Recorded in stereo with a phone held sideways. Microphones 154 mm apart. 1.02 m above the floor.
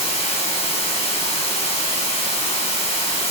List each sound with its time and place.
0.0 s running water: 40° left (ahead or behind), 2 m